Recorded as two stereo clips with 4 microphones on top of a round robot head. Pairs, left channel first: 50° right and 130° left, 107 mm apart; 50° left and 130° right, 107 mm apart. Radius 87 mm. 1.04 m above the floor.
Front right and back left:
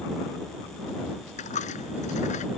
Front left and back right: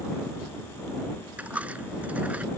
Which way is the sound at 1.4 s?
55° right.